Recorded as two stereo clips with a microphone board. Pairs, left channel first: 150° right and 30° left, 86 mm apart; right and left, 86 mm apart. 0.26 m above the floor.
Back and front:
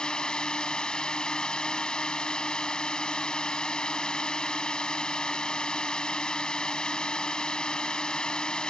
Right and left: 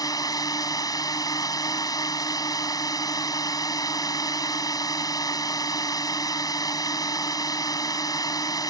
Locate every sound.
0.0 s a drone: 75° right